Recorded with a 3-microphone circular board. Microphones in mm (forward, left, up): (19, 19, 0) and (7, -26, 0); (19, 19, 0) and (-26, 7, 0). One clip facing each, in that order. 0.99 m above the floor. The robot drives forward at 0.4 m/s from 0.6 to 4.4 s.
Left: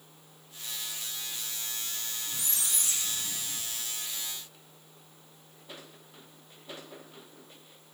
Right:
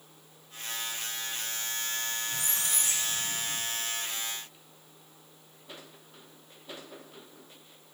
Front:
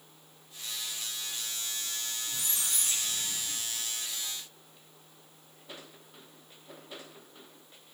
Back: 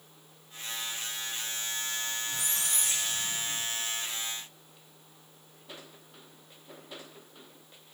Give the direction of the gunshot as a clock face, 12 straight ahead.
I don't hear a gunshot.